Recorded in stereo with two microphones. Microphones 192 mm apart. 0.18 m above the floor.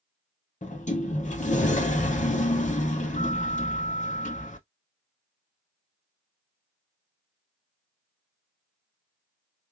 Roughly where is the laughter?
No laughter in this recording.